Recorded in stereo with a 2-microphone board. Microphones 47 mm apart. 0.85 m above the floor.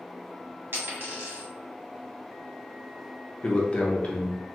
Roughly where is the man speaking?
Left.